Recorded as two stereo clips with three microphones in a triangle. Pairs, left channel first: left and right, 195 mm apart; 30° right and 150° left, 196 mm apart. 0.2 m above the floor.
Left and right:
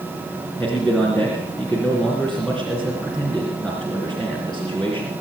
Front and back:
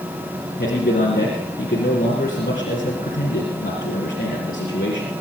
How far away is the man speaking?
About 3 m.